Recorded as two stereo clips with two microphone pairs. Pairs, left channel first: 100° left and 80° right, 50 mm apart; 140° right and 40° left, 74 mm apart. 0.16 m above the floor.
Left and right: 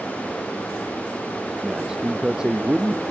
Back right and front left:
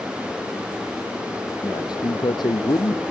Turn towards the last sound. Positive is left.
turn(degrees=-145)